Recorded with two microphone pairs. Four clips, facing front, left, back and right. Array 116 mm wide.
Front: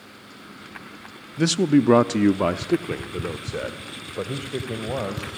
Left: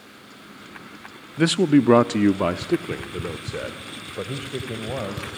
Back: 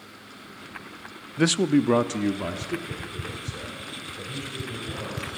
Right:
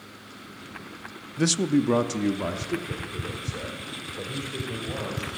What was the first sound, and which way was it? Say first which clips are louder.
A man speaking: left 6 dB, front 2 dB; 140° left.